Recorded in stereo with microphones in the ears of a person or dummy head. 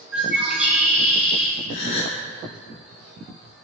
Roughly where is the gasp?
Left.